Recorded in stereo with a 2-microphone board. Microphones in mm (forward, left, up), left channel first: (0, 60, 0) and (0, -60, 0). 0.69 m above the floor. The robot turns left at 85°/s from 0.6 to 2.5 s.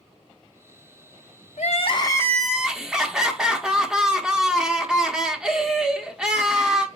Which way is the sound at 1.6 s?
75° left.